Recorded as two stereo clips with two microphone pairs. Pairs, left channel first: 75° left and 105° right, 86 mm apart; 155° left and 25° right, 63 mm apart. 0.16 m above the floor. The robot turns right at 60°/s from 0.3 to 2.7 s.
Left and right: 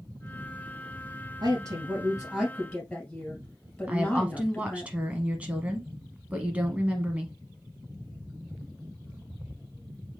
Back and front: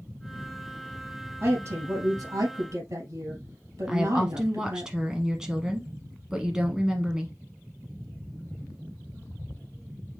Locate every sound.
1.4 s a woman speaking: 80° right, 3 m; by 4.9 s 5° right, 3 m
3.9 s a woman speaking: 80° right, 1.0 m